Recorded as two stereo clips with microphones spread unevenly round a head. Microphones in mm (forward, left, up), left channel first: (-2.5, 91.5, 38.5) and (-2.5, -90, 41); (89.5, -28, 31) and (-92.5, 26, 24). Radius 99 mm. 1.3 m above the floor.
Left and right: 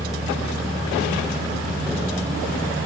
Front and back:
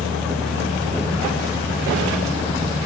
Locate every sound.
0.0 s a fan: 105° right, 1.1 m